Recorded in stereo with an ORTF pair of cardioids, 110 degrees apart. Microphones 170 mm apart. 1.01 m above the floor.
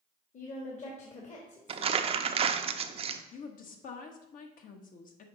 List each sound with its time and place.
0.3 s a woman speaking: 45° left, 1.7 m
1.7 s crumpling: 40° right, 0.6 m
3.3 s a woman speaking: 55° left, 1.3 m